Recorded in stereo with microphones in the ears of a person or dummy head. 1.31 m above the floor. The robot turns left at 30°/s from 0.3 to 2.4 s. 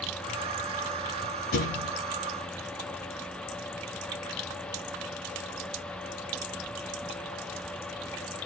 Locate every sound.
1.5 s a thud: 60° left (ahead or behind), 3.5 m; by 1.9 s 70° left (ahead or behind), 3.5 m